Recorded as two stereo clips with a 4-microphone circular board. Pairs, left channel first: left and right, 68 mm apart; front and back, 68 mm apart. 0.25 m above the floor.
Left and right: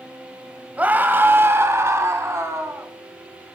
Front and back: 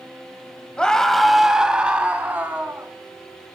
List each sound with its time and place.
0.8 s a scream: 60° right, 1.1 m; by 2.9 s 125° right, 2 m